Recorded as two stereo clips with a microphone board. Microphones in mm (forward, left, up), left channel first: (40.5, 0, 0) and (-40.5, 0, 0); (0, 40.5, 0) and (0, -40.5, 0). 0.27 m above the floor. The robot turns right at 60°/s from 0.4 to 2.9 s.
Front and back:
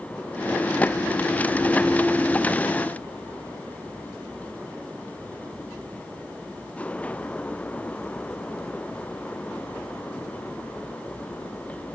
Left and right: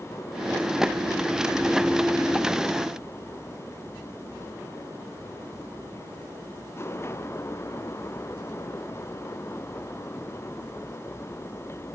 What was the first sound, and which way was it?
Only background noise.